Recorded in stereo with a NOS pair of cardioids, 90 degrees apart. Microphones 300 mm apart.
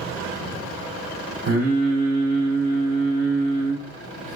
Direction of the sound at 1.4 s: 55° right.